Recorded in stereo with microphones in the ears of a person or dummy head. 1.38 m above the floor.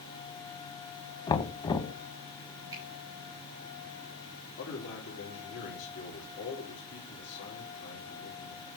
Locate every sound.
1.3 s knocking: 20° left (ahead or behind), 0.7 m
2.7 s a finger snap: 20° right (ahead or behind), 4 m
4.6 s a man speaking: 55° left (ahead or behind), 3 m